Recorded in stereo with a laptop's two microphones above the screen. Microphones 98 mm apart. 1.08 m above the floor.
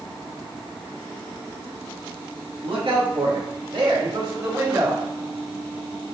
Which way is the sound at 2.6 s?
65° right (ahead or behind).